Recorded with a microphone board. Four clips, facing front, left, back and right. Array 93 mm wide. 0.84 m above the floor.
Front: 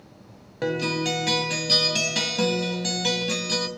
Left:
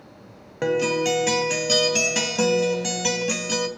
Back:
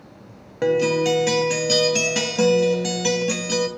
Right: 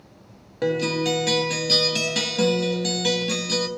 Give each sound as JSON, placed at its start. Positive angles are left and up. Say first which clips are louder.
{"t": 0.6, "sound": "a guitar", "louder": "left 1 dB, back 7 dB", "azimuth_deg": 120, "distance_m": 0.7}